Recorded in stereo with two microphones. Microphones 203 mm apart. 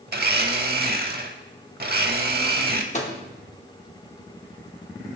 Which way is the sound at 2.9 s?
35° left (ahead or behind).